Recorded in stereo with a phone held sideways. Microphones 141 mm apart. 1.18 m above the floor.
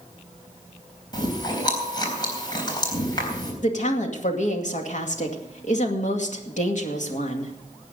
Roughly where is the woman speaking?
Left.